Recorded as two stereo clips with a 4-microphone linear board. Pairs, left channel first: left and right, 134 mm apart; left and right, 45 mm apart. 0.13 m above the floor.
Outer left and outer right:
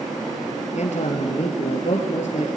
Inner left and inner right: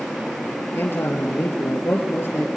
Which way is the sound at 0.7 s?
60° left (ahead or behind).